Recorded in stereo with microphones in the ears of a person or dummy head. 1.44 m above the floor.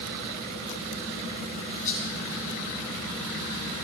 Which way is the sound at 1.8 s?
20° left (ahead or behind).